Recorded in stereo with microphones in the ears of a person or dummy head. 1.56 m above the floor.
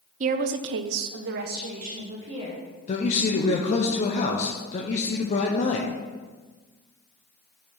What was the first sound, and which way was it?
A woman speaking, 45° right (ahead or behind).